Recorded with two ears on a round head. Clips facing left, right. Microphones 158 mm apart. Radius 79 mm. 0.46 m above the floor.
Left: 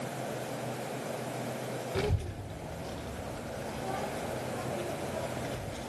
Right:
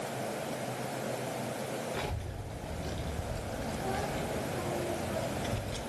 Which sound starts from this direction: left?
A child speaking, at 1.9 s.